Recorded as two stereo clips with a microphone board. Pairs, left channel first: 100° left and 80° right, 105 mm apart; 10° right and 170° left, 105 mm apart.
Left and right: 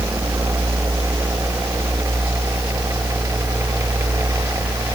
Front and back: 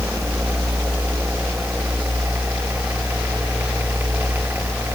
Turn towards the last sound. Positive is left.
No sound to turn to.